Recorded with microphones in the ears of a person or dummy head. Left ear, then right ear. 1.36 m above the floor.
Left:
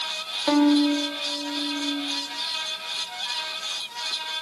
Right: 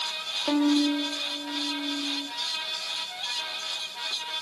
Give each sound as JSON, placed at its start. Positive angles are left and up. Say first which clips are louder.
{"t": 0.5, "sound": "a violin", "louder": "left 5 dB", "side_deg": 15, "distance_m": 1.6}